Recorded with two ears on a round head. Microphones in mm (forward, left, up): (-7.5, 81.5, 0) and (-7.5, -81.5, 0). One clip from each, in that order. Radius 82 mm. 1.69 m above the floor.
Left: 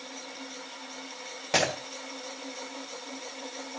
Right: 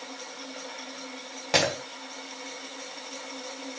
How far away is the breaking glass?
About 1.5 m.